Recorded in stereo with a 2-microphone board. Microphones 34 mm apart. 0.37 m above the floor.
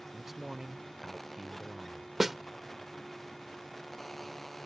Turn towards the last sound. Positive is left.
turn(degrees=-5)  # may be behind; listen again after turning